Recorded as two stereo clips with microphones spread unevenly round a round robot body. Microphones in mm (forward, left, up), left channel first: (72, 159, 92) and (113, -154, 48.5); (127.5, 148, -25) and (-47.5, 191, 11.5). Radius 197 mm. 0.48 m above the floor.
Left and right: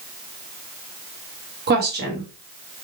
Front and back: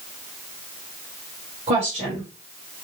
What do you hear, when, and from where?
1.7 s a woman speaking: 125° right, 1.8 m